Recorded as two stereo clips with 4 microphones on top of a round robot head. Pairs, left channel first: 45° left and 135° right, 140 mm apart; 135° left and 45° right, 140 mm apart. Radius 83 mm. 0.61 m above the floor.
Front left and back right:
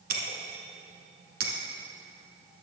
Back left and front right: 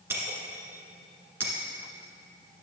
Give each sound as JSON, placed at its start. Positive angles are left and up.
{"t": 0.1, "sound": "breaking glass", "azimuth_deg": -120, "distance_m": 1.5}